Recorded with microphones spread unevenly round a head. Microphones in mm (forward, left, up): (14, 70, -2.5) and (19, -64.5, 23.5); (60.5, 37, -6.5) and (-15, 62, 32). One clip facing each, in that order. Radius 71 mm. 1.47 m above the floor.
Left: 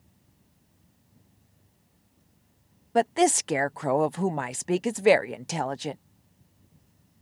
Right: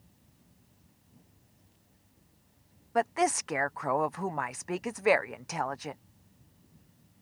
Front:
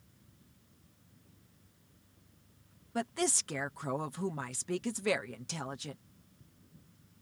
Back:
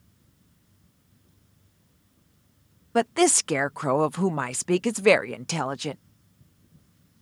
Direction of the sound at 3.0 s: 150° left.